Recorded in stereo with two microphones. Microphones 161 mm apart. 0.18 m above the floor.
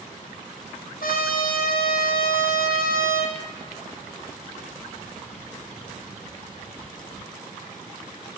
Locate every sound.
1.0 s a trumpet: 80° left, 1.2 m